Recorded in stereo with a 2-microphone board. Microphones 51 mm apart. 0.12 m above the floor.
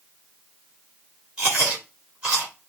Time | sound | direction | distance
1.4 | chewing | 25° right (ahead or behind) | 3.5 m